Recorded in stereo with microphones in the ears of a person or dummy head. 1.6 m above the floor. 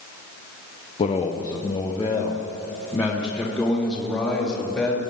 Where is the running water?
I don't hear running water.